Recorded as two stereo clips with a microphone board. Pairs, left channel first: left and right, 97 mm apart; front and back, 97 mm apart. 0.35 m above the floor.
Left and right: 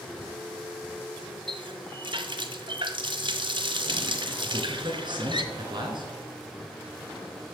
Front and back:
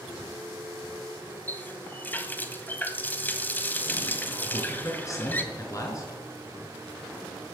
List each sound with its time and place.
1.5 s a running tap: 70° right, 1.3 m
4.4 s a man speaking: 55° right, 4 m